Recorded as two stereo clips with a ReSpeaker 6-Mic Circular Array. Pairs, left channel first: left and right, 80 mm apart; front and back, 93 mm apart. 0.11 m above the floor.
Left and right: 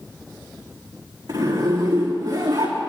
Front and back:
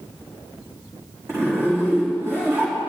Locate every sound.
1.3 s a zipper: 120° right, 5 m